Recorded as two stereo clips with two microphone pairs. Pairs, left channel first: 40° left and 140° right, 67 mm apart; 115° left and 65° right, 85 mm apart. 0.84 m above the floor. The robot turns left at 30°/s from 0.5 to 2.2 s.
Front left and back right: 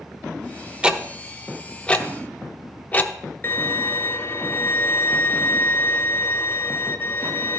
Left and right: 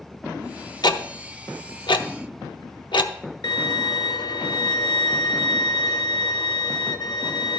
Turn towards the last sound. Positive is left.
turn(degrees=95)